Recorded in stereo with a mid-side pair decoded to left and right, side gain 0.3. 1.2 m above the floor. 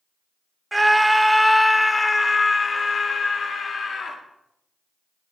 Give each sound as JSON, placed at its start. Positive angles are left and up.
{"t": 0.7, "sound": "a scream", "azimuth_deg": -20, "distance_m": 1.1}